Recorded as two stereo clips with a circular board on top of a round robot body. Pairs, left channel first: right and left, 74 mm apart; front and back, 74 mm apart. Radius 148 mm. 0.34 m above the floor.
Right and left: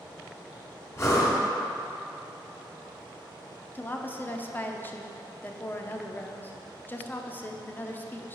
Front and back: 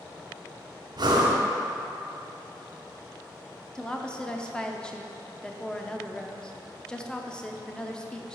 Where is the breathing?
150° right, 1.6 m.